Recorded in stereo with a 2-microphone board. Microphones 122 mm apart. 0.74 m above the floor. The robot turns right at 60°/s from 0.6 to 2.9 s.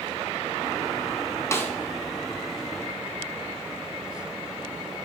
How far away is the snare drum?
About 0.6 m.